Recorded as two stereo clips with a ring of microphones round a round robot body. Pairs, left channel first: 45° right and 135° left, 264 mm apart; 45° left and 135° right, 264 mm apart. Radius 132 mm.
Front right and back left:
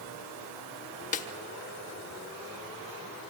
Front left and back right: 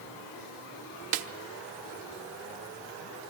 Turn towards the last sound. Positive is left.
turn(degrees=-110)